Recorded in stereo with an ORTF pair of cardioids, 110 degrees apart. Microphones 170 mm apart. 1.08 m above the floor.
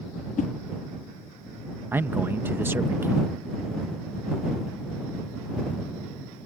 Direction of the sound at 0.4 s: 50° left.